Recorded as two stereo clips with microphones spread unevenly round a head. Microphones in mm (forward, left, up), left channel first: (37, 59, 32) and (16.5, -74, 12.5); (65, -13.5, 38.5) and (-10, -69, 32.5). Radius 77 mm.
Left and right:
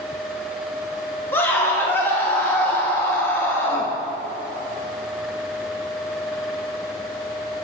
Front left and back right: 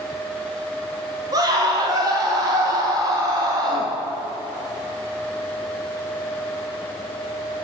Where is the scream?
160° left, 2.5 m.